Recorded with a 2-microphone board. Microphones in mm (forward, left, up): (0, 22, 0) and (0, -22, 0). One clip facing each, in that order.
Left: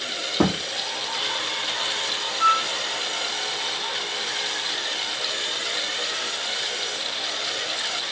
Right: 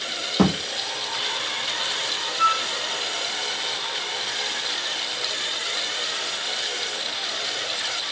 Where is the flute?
60° right (ahead or behind), 2 m.